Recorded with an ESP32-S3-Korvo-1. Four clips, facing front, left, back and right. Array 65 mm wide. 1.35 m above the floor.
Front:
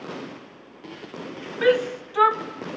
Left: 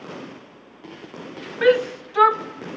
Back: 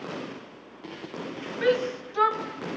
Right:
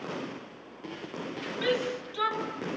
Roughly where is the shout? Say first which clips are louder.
Left 12 dB, front 4 dB; left.